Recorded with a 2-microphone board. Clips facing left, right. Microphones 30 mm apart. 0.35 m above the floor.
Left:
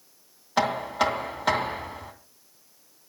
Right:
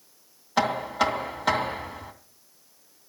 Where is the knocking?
Centre (ahead or behind), 3 m.